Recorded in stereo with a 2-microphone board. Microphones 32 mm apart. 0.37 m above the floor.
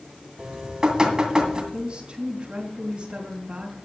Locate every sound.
0.4 s dripping: 20° right (ahead or behind), 2 m
1.7 s a woman speaking: 25° right (ahead or behind), 2.5 m